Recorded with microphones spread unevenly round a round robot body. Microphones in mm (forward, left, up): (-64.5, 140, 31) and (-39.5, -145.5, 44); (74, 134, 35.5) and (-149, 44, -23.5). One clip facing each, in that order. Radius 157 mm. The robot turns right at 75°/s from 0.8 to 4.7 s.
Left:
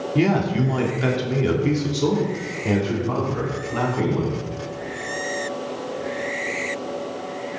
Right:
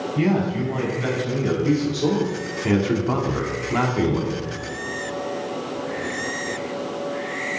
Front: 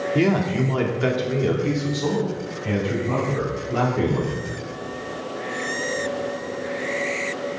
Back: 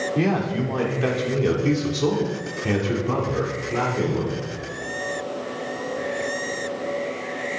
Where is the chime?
I don't hear a chime.